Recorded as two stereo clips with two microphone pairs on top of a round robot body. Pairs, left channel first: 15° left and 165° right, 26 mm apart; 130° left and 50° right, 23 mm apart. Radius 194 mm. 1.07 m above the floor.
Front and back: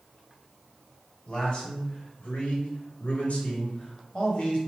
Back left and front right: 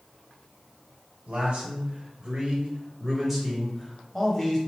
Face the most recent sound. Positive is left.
turn(degrees=65)